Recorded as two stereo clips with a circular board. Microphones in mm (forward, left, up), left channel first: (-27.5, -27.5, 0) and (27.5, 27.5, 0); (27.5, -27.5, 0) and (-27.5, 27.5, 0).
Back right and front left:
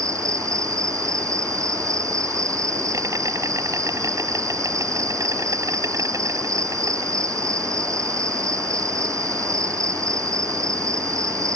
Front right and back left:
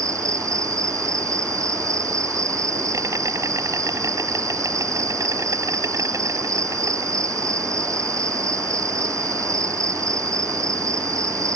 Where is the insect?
90° left.